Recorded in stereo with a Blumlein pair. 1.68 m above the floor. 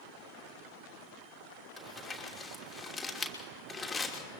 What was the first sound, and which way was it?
Crumpling, 10° left.